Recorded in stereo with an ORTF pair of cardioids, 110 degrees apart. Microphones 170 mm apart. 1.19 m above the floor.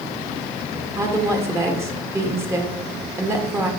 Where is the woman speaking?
15° right, 1.5 m.